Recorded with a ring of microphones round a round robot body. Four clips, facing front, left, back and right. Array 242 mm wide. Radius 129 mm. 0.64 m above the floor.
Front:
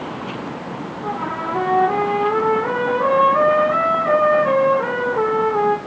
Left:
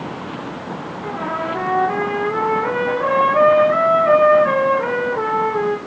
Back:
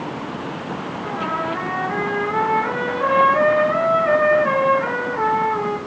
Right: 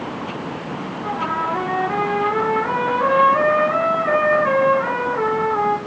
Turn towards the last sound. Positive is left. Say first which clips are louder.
# right 1 dB, even
turn(degrees=35)